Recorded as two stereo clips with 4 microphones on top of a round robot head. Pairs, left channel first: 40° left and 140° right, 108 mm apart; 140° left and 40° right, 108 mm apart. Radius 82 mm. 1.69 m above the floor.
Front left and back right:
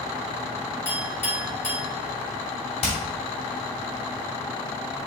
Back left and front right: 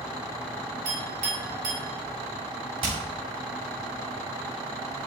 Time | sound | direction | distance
0.8 | a clink | 30° right | 2.5 m
2.8 | hammering | 5° left | 2.5 m